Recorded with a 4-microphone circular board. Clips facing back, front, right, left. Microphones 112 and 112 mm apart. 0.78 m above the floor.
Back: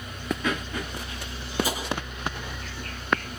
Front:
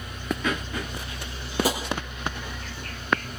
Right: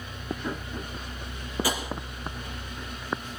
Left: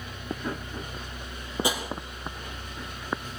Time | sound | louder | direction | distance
1.6 | tapping | front 4 dB, left 1 dB | 25° left | 5 m